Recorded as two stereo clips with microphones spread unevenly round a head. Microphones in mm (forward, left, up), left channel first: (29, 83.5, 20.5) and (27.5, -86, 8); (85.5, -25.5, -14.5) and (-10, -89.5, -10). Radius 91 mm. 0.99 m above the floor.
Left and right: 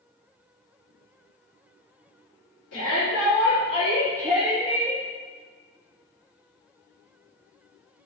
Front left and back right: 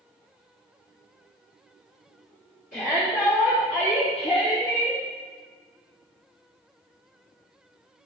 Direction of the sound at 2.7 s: 75° left.